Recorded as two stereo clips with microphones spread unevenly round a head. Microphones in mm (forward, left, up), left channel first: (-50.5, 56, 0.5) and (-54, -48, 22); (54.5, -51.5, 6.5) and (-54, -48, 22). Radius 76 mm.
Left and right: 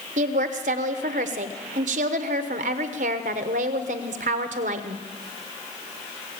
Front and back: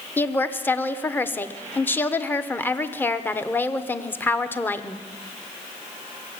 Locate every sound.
0.2 s a woman speaking: 70° right, 1.0 m